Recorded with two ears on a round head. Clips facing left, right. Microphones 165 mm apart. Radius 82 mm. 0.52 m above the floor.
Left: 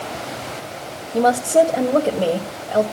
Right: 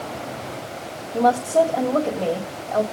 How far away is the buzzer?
No buzzer in this recording.